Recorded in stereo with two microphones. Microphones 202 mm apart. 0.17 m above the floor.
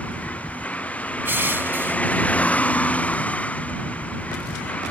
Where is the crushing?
10° right (ahead or behind).